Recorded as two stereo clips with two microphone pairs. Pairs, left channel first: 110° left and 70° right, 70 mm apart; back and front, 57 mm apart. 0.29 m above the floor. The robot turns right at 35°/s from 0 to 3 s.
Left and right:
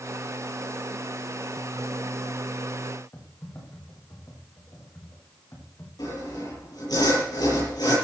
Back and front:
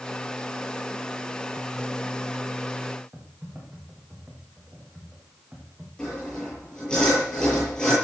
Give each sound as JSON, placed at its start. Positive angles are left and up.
{"t": 3.1, "sound": "typing on a keyboard", "azimuth_deg": 70, "distance_m": 6.0}
{"t": 6.0, "sound": "sawing", "azimuth_deg": 105, "distance_m": 8.5}